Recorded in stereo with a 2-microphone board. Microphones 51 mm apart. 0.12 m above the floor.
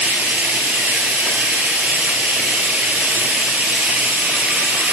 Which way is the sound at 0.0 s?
30° right (ahead or behind).